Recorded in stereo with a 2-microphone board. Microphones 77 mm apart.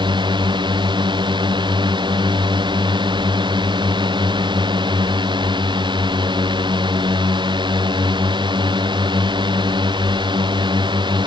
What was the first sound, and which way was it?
A drone, 85° right.